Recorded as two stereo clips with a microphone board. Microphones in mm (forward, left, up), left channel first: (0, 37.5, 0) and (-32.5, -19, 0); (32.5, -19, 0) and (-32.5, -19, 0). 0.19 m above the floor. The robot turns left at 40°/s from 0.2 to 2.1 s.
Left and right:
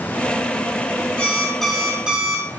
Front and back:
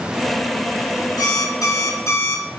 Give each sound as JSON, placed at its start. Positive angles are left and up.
{"t": 1.2, "sound": "an alarm clock", "azimuth_deg": -10, "distance_m": 5.0}